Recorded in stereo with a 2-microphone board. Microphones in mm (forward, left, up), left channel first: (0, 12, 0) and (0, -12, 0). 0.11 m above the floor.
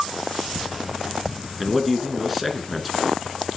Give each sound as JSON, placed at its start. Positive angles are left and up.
{"t": 1.6, "sound": "a man speaking", "side_deg": -5, "distance_m": 1.2}